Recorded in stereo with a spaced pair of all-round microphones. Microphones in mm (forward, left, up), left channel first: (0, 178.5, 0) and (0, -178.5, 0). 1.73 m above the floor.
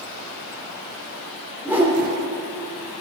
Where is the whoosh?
5° right (ahead or behind), 1.4 m.